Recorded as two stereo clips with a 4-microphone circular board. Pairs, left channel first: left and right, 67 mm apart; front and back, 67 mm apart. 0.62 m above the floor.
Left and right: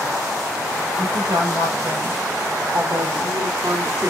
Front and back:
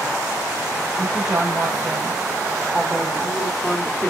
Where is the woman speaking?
110° right, 2.5 m; by 4.1 s 60° right, 1.4 m.